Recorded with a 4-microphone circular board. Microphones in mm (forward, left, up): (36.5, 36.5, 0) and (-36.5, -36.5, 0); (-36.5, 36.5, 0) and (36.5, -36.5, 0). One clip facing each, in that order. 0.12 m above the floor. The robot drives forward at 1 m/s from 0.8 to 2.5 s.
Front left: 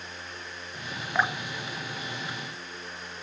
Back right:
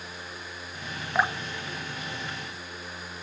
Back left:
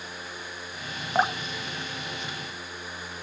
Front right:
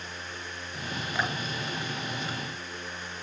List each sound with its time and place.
1.1 s dripping: 145° left, 0.9 m; by 2.8 s 170° left, 2.0 m